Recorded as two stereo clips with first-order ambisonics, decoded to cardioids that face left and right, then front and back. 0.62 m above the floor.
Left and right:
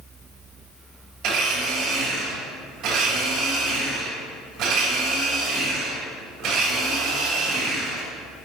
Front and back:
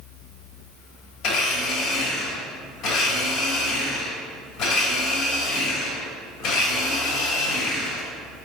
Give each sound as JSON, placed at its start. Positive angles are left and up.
{"t": 1.2, "sound": "a blender", "azimuth_deg": -45, "distance_m": 2.5}